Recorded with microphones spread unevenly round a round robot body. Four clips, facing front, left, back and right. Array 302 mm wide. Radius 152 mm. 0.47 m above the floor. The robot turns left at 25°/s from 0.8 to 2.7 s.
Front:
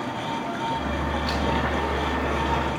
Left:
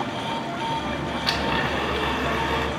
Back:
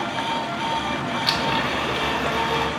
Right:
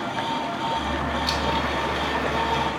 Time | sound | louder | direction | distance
1.3 | a blender | left 3 dB, back 2 dB | 130° left | 1.6 m